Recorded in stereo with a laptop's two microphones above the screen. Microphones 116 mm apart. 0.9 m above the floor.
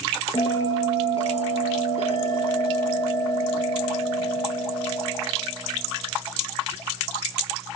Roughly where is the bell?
Left.